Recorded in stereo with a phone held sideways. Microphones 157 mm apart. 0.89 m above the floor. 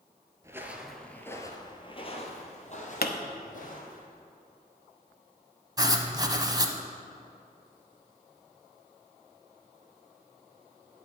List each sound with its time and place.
0.4 s footsteps: 20° right (ahead or behind), 1.0 m; by 4.0 s 60° left (ahead or behind), 2.5 m
3.0 s a pop: 75° left (ahead or behind), 0.8 m
5.8 s writing: 25° right (ahead or behind), 0.8 m